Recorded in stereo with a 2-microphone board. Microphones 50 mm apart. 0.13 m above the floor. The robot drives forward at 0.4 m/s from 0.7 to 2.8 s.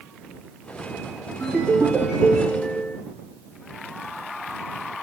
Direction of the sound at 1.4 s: 20° left (ahead or behind).